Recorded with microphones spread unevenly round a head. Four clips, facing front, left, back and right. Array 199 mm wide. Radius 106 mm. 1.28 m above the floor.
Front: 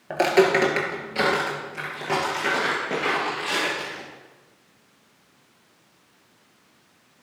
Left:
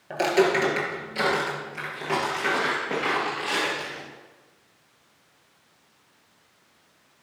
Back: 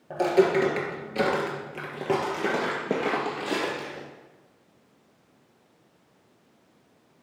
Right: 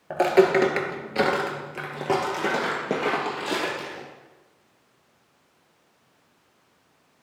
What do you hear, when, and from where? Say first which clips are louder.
0.1 s footsteps: right 3 dB, front 2 dB; 10° right, 1.3 m; by 4.0 s 150° right, 2.5 m